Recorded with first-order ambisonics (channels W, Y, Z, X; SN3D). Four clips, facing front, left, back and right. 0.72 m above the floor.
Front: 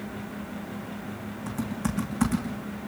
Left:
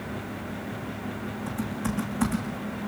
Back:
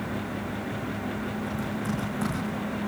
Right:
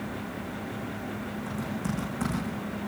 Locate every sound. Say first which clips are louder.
1.5 s typing on a keyboard: left 2 dB, back 1 dB; 5° left, 10 m